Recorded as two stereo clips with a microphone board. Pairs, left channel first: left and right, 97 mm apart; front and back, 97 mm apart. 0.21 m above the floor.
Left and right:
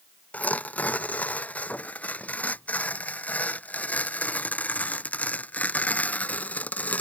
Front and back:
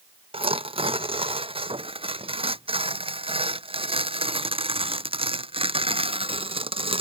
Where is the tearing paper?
165° left.